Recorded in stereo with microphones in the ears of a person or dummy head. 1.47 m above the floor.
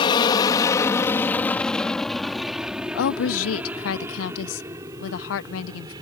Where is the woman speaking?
75° left (ahead or behind).